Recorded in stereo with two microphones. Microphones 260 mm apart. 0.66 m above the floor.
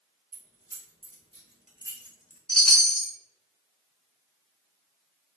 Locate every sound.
0.3 s keys jangling: 70° right (ahead or behind), 1.6 m; by 2.4 s 35° left (ahead or behind), 0.6 m
2.5 s a chime: 5° left (ahead or behind), 0.9 m